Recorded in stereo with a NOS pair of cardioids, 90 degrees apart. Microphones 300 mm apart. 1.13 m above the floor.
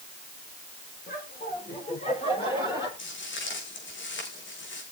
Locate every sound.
1.1 s laughter: 30° left, 4.5 m; by 2.9 s 10° left, 6 m
3.0 s footsteps: 40° left, 4.5 m